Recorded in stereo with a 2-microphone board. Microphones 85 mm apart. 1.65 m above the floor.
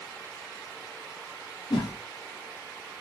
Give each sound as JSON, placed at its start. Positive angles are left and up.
{"t": 1.7, "sound": "a whoosh", "side_deg": 70, "distance_m": 0.8}